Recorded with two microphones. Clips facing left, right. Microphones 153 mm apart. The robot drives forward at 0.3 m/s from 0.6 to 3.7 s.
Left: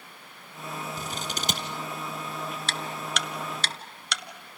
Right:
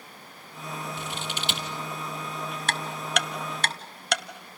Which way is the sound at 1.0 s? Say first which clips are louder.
Even; 40° left (ahead or behind).